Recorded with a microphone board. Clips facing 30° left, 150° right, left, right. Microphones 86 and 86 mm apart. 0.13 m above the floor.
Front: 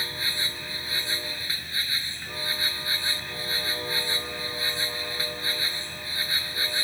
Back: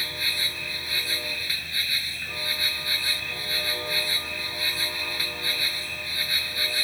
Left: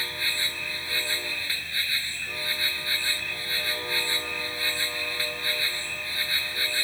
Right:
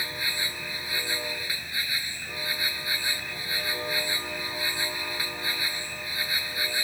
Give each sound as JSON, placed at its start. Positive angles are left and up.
{"t": 0.0, "sound": "an insect", "azimuth_deg": -20}